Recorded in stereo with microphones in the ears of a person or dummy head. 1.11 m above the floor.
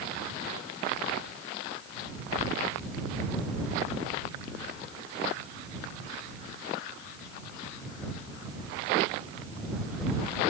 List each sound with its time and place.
Only background noise.